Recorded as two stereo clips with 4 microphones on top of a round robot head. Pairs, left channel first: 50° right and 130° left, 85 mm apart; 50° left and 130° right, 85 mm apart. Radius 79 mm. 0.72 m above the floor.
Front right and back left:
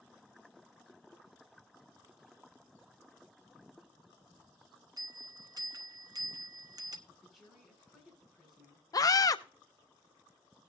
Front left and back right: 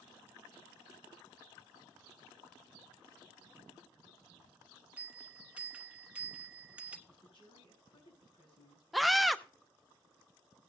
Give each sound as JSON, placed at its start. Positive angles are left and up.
{"t": 5.0, "sound": "a bell", "azimuth_deg": 160, "distance_m": 1.4}
{"t": 7.1, "sound": "a woman speaking", "azimuth_deg": 40, "distance_m": 6.0}
{"t": 8.9, "sound": "a scream", "azimuth_deg": -40, "distance_m": 0.7}